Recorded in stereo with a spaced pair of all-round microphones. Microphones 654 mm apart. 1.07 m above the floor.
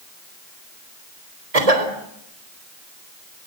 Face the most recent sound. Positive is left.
turn(degrees=-65)  # may be behind; listen again after turning